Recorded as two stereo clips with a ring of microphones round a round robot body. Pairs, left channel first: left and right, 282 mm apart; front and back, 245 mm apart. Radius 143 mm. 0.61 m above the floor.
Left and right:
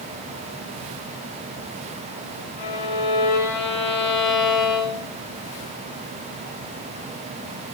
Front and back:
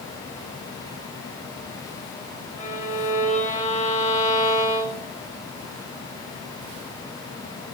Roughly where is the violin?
Ahead left.